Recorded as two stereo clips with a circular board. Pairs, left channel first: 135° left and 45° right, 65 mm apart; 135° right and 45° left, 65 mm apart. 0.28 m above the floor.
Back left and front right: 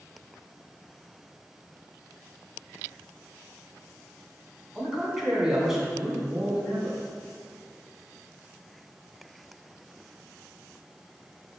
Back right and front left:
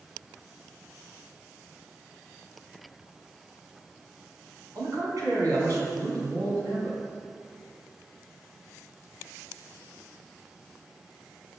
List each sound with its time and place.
4.8 s a man speaking: 35° left, 3 m